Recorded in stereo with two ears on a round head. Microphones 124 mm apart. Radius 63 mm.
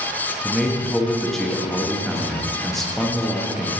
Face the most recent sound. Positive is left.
turn(degrees=0)  # may be behind; listen again after turning